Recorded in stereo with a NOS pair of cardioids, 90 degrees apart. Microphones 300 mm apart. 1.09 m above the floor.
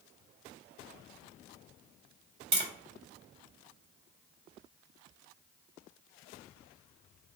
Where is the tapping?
35° right, 1.4 m.